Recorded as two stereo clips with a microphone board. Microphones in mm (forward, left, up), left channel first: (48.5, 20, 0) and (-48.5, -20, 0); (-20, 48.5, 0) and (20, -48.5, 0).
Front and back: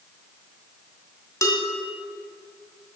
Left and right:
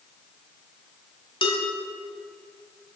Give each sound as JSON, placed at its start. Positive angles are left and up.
{"t": 1.4, "sound": "dishes clattering", "azimuth_deg": 80, "distance_m": 2.0}